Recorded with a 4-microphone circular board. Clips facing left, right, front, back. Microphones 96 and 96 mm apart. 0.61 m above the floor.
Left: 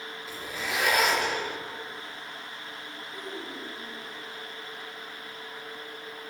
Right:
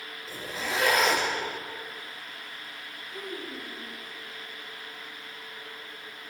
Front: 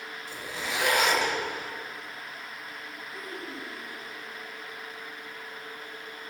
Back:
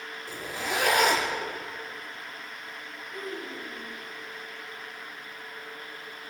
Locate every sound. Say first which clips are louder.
0.3 s a zipper: right 2 dB, back 3 dB; 145° right, 4 m
3.1 s a child speaking: right 1 dB, back 4 dB; 110° right, 4 m